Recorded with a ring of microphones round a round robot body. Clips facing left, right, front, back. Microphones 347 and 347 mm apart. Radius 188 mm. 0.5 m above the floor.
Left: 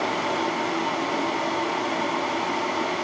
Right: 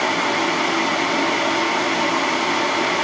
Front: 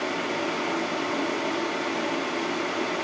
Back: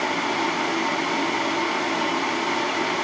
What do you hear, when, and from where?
Only background noise.